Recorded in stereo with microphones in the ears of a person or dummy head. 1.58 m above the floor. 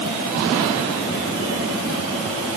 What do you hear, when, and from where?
Only background noise.